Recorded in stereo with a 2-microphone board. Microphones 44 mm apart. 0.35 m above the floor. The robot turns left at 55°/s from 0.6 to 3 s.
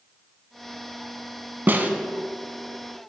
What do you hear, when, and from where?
1.7 s a snare drum: 50° right (ahead or behind), 0.6 m; by 1.9 s 35° right (ahead or behind), 0.6 m